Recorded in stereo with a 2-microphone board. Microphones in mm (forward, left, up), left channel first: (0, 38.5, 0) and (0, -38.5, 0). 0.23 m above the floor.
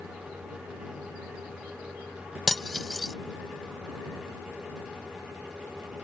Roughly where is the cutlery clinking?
Centre.